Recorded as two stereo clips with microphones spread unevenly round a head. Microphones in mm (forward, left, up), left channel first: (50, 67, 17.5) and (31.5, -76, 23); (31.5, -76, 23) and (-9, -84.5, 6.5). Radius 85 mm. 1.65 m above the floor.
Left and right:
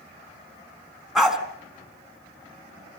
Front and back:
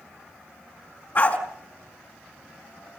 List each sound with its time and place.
1.1 s a dog barking: 10° right, 4 m